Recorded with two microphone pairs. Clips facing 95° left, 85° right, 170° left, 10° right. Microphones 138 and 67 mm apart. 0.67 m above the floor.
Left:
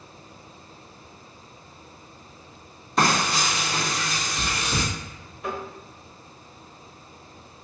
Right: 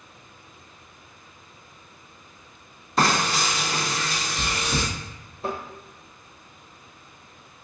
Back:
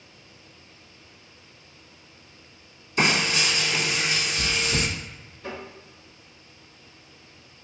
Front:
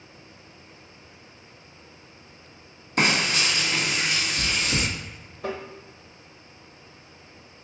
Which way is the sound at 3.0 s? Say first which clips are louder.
Even, even; 5° left.